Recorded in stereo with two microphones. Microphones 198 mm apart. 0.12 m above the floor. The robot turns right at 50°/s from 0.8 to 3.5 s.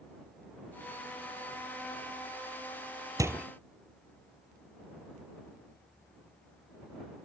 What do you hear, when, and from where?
3.2 s a door slam: 15° right (ahead or behind); by 3.5 s 5° right (ahead or behind)